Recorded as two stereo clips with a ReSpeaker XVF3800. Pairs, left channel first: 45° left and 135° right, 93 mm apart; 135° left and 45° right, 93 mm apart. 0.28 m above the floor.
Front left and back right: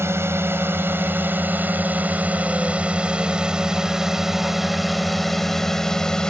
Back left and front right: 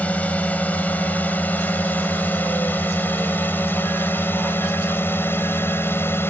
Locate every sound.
0.0 s a drone: 165° right; by 6.3 s 115° left